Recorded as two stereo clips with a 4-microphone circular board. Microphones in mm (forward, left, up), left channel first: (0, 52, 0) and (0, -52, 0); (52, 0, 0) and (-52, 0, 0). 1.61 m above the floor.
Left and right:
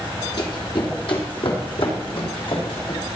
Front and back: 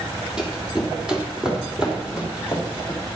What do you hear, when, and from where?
0.4 s running footsteps: 100° left, 2.5 m